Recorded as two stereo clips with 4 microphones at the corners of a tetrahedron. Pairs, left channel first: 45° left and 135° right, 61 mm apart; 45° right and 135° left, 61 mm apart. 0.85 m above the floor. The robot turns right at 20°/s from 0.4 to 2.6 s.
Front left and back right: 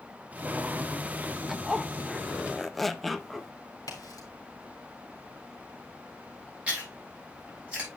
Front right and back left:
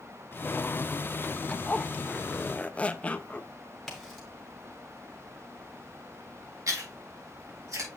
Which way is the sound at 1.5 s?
60° right.